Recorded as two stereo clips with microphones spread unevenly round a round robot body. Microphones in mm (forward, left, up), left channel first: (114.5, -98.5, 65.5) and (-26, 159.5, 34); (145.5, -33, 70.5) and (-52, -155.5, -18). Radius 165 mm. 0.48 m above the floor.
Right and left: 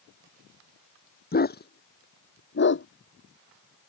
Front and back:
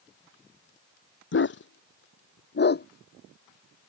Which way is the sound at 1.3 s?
Straight ahead.